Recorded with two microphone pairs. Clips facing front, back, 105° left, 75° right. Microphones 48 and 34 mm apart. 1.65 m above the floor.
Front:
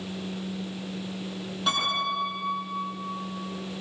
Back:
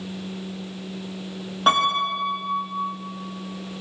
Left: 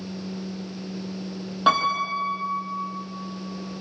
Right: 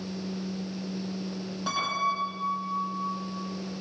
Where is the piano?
135° left, 9 m.